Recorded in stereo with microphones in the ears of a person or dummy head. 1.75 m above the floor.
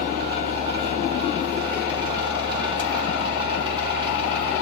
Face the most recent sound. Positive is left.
turn(degrees=-20)  # may be behind; listen again after turning